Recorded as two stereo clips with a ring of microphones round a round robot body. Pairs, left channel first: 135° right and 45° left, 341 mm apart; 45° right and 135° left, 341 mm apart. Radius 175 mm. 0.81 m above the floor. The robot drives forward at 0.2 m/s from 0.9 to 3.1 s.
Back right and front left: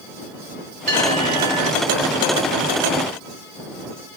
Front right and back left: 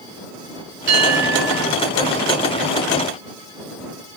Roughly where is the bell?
Behind left.